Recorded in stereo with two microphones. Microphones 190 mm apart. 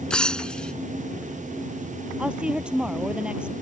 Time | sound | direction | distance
0.1 | breaking glass | 5° left (ahead or behind) | ?
2.2 | a woman speaking | 5° right (ahead or behind) | ?